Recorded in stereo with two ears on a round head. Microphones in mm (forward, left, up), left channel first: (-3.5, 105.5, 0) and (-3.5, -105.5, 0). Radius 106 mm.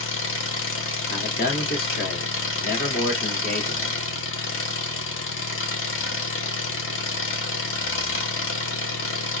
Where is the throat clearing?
No throat clearing in this recording.